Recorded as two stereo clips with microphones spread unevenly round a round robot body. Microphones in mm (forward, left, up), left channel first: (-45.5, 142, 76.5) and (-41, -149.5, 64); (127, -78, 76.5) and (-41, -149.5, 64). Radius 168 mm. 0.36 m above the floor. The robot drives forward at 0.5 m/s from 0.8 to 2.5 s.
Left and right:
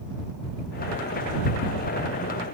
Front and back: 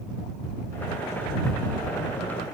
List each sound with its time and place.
Only background noise.